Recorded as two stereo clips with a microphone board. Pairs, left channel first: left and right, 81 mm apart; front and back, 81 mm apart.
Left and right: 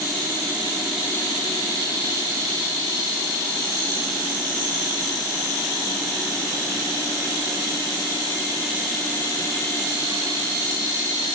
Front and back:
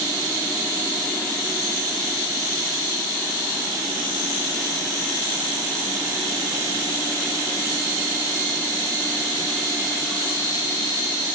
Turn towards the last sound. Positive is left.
No sound to turn to.